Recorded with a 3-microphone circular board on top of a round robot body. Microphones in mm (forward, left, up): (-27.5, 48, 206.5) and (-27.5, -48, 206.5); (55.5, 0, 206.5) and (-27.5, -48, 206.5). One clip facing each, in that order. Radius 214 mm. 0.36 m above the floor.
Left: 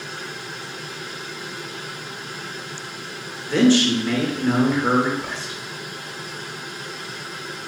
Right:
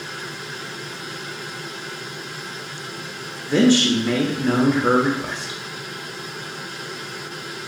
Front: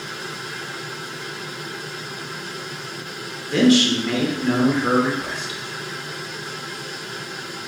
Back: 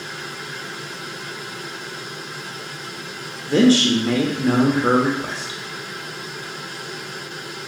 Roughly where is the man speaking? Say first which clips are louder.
Even, back 1 dB; behind right.